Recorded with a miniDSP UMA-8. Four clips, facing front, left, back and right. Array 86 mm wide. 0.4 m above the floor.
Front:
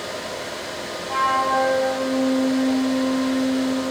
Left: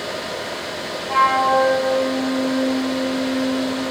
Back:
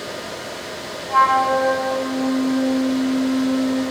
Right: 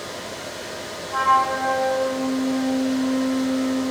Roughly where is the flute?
Left.